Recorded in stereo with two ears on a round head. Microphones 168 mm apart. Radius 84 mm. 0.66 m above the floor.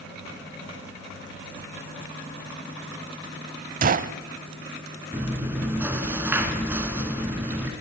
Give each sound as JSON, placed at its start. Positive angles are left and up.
{"t": 3.8, "sound": "a gunshot", "side_deg": -45, "distance_m": 0.6}
{"t": 5.1, "sound": "chewing", "side_deg": -10, "distance_m": 1.8}